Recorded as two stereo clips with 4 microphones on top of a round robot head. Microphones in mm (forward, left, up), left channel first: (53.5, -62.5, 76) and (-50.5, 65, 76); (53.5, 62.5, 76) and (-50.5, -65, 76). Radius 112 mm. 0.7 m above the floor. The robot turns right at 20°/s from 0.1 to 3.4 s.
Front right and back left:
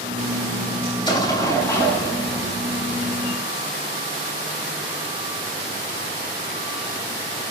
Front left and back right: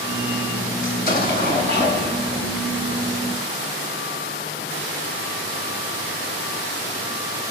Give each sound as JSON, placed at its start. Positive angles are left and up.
{"t": 0.8, "sound": "an explosion", "azimuth_deg": 10, "distance_m": 7.0}